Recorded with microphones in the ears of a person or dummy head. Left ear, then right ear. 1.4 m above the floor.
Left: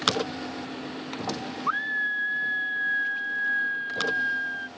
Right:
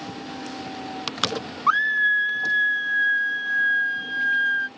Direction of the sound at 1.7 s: 70° right (ahead or behind).